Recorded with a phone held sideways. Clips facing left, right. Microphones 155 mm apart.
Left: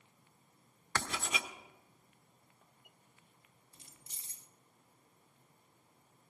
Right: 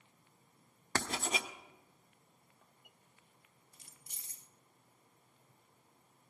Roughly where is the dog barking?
I don't hear a dog barking.